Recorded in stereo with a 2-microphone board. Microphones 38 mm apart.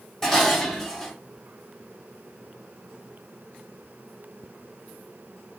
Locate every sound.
0.2 s dishes clattering: 10° left (ahead or behind), 1.0 m